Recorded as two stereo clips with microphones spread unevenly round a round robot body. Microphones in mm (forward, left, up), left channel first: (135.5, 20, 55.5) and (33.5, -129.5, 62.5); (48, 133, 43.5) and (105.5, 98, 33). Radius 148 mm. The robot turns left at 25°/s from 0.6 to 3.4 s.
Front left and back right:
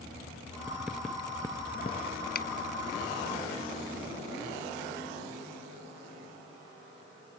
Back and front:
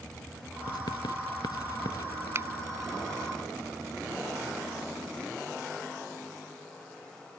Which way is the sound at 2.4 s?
20° left.